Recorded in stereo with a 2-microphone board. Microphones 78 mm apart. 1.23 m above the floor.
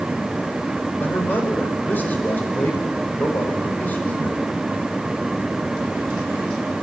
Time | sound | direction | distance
1.0 | a man speaking | 25° left (ahead or behind) | 5 m